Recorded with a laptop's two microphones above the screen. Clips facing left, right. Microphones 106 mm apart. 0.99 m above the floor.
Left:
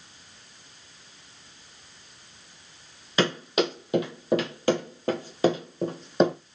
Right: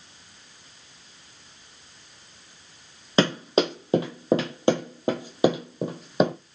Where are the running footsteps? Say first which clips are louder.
Right 3 dB; 30° right (ahead or behind), 1.3 m; by 6.3 s 5° right (ahead or behind), 1.3 m.